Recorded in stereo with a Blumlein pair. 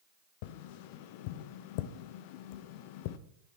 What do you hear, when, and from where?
0.4 s tapping: 45° left, 0.8 m